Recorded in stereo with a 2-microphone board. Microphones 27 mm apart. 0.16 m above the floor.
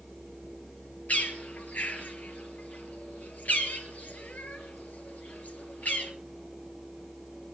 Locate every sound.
1.1 s a bird: 65° left (ahead or behind), 3.5 m